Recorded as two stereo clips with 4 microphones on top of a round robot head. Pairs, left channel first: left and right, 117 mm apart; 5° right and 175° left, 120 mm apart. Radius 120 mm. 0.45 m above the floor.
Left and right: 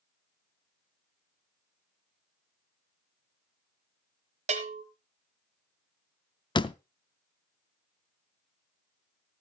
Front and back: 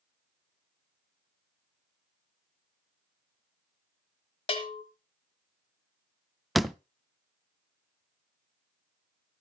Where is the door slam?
85° left, 0.6 m.